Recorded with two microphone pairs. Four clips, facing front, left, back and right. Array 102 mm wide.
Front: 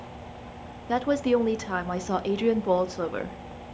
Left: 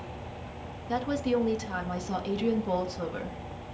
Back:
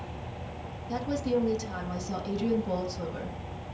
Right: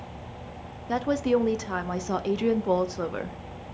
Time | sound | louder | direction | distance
0.9 | a woman speaking | right 4 dB, front 6 dB | 35° right | 0.6 m